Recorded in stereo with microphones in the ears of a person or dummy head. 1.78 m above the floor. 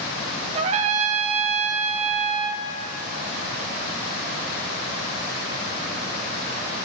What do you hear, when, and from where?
0.6 s a trumpet: 40° right (ahead or behind), 0.7 m